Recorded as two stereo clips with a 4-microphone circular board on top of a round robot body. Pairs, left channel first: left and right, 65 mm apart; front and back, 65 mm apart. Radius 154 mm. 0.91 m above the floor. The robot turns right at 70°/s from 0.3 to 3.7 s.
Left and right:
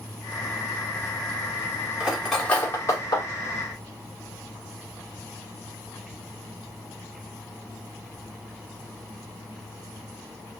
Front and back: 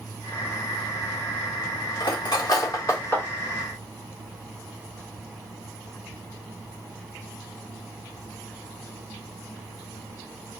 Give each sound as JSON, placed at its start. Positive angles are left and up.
{"t": 2.0, "sound": "cutlery clinking", "azimuth_deg": -20, "distance_m": 1.6}